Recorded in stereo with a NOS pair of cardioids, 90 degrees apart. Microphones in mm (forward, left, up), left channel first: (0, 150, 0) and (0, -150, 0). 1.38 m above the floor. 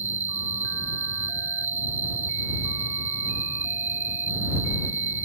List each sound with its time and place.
0.0 s an insect: 40° right